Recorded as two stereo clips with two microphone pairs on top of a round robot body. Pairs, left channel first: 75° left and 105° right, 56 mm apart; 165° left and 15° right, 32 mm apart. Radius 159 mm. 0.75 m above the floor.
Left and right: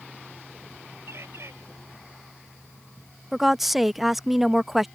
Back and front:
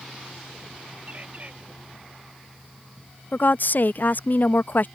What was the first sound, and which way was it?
A bird, 65° right.